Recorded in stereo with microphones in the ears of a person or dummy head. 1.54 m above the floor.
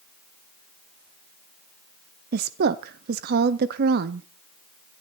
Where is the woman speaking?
60° right (ahead or behind), 0.7 m.